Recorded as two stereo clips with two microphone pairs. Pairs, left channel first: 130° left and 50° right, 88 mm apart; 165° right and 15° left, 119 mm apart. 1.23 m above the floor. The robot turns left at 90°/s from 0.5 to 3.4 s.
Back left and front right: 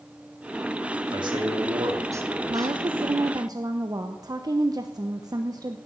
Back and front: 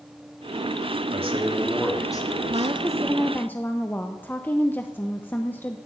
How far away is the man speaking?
About 2.5 m.